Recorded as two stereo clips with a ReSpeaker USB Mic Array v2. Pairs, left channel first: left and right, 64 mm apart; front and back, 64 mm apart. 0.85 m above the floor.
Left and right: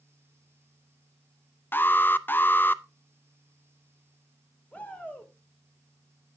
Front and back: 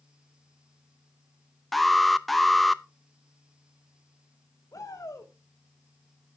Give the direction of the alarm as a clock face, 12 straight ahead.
9 o'clock.